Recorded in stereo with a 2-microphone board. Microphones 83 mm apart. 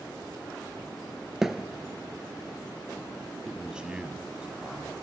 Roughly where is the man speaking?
Centre.